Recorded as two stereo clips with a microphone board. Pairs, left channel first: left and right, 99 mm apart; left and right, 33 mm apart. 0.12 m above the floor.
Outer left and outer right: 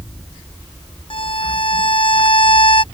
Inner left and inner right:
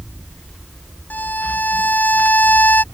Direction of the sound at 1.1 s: 60° left (ahead or behind).